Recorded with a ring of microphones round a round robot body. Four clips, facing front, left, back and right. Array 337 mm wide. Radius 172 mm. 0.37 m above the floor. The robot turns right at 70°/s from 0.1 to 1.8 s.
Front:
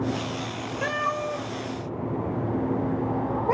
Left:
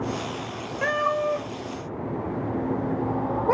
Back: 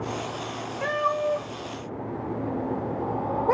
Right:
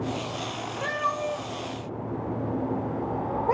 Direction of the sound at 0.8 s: 65° left.